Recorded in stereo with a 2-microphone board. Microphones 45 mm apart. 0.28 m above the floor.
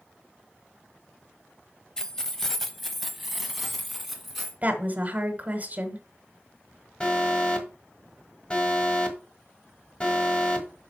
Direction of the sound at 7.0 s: 20° left (ahead or behind).